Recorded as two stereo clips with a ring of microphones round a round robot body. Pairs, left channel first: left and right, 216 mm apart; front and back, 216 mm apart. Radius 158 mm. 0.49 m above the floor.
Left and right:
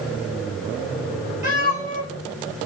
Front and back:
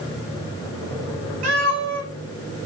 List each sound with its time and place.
1.4 s a cat meowing: 150° right, 4.5 m